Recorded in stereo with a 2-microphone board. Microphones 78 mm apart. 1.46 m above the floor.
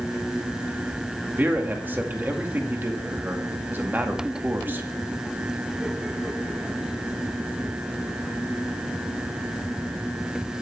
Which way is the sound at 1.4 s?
25° right (ahead or behind).